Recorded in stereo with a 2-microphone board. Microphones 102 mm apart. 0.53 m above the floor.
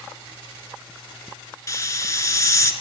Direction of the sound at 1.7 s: 30° left (ahead or behind).